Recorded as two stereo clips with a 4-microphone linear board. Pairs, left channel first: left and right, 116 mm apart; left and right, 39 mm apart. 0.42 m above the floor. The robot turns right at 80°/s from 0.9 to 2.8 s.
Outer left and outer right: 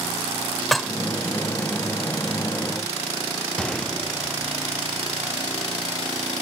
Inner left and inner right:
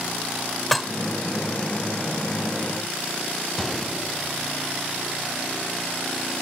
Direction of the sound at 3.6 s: 5° left (ahead or behind).